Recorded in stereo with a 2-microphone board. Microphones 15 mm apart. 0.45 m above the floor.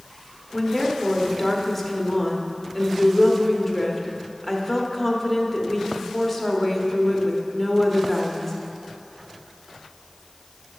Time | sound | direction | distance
0.5 | a woman speaking | 5° left (ahead or behind) | 0.9 m